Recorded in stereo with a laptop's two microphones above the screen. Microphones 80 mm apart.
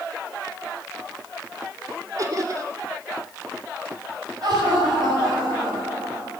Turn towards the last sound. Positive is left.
turn(degrees=-60)  # may be behind; listen again after turning